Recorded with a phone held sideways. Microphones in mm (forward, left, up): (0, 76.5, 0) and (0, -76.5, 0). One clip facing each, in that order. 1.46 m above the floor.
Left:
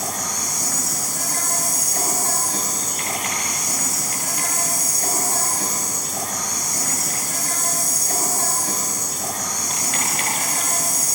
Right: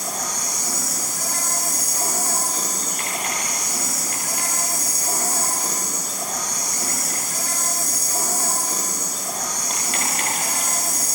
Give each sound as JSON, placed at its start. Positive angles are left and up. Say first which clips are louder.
{"t": 0.0, "sound": "an insect", "louder": "left 1 dB", "side_deg": 75, "distance_m": 3.5}